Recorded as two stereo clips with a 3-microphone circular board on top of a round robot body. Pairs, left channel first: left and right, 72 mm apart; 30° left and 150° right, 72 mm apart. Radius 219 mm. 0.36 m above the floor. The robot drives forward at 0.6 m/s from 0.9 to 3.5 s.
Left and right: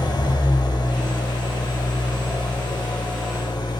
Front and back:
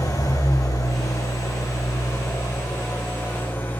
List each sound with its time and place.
0.0 s an engine running: 70° left, 4 m; by 3.8 s 95° left, 4 m